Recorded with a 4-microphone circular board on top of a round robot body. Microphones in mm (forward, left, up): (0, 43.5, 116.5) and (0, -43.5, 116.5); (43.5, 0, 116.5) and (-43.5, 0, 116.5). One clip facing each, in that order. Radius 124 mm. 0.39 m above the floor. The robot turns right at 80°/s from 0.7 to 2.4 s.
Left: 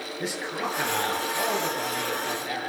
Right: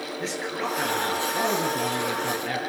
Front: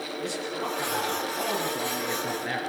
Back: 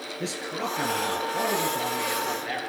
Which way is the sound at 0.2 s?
175° left.